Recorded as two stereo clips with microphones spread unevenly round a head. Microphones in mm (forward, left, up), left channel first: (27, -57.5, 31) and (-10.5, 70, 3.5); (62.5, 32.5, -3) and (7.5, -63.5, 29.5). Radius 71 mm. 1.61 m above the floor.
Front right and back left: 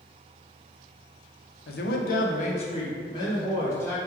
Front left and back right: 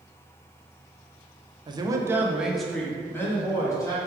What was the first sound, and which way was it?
A man speaking, 75° right.